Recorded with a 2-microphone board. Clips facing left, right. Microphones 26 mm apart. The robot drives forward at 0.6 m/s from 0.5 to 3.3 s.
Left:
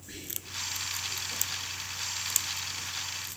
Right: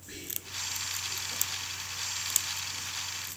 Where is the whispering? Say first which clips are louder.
Even; 10° right (ahead or behind), 1.8 m.